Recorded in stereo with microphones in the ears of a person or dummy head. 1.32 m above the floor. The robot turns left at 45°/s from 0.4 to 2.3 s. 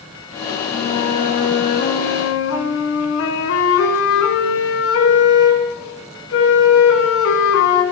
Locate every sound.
0.7 s a flute: 155° left, 3 m; by 7.8 s 85° left, 3 m